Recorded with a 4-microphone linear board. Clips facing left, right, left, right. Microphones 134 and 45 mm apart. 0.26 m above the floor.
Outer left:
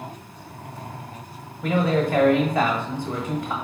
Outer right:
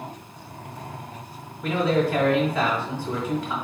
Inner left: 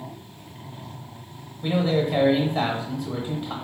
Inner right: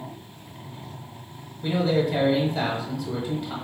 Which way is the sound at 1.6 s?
15° left (ahead or behind).